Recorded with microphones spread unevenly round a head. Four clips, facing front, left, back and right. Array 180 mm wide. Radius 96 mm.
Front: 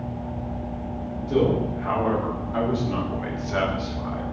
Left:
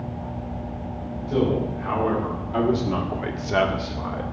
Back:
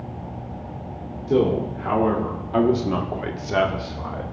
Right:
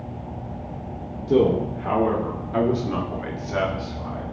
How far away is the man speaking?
About 2 m.